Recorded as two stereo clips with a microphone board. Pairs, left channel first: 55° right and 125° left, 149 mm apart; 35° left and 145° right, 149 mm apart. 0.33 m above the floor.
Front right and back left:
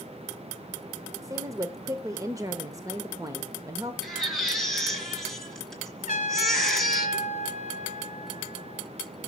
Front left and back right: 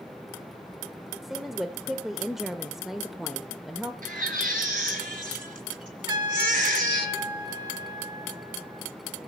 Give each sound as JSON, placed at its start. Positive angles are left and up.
{"t": 1.2, "sound": "a woman speaking", "azimuth_deg": 130, "distance_m": 1.0}
{"t": 4.0, "sound": "a baby crying", "azimuth_deg": -145, "distance_m": 2.0}
{"t": 6.1, "sound": "a trumpet", "azimuth_deg": -90, "distance_m": 1.8}